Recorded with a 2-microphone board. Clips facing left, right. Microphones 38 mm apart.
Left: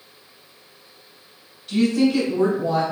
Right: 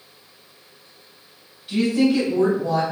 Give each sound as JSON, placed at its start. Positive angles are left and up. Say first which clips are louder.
{"t": 1.7, "sound": "a woman speaking", "louder": "even", "side_deg": -15, "distance_m": 1.0}